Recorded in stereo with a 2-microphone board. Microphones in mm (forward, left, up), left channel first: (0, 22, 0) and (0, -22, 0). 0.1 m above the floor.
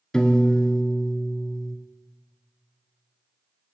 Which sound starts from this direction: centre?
A piano, at 0.1 s.